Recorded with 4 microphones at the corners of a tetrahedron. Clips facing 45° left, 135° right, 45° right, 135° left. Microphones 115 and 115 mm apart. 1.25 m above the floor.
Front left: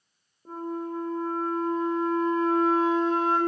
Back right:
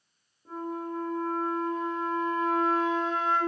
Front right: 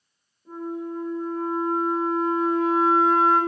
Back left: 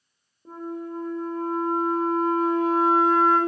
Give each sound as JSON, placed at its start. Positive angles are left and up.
{"t": 0.5, "sound": "a flute", "azimuth_deg": 100, "distance_m": 1.4}